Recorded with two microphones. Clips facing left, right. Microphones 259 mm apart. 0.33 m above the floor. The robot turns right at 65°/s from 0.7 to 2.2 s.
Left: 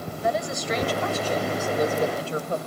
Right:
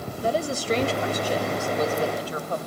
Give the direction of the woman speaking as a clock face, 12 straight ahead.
2 o'clock.